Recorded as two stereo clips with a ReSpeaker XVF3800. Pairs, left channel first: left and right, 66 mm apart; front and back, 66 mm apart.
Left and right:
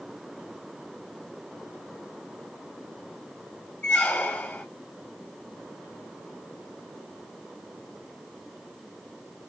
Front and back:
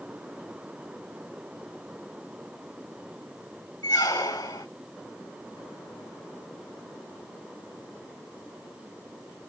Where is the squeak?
20° left, 0.8 m.